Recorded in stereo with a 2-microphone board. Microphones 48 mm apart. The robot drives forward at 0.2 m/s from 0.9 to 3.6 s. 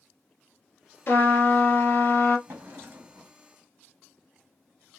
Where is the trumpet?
45° left (ahead or behind), 1.1 m.